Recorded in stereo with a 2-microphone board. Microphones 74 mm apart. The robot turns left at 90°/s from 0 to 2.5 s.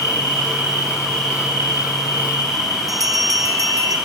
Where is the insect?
120° left, 9.5 m; by 4.1 s 105° right, 9.5 m.